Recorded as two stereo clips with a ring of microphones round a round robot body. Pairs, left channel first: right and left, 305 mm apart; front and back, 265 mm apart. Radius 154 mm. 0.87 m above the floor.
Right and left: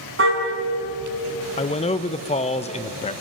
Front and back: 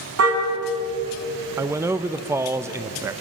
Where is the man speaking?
115° right, 0.6 m.